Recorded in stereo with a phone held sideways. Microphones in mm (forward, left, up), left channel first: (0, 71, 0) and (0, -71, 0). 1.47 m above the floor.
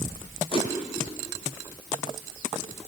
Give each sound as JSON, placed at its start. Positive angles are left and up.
{"t": 0.5, "sound": "a whoosh", "side_deg": 45, "distance_m": 8.0}